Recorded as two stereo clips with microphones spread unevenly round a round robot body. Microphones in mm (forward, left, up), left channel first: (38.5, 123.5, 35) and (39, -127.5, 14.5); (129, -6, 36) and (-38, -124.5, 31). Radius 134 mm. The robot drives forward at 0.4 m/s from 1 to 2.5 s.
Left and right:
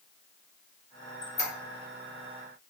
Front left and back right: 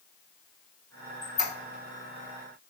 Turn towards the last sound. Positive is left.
turn(degrees=35)